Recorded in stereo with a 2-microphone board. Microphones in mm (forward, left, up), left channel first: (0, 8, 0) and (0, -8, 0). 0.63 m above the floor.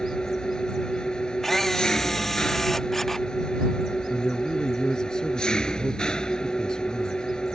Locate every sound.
0.0 s an engine running: 55° left (ahead or behind)
1.4 s a camera shutter: 25° left (ahead or behind)
4.1 s a man speaking: 50° left (ahead or behind)